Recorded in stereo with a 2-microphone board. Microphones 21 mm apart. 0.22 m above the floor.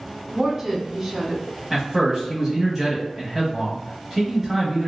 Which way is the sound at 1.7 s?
20° right (ahead or behind).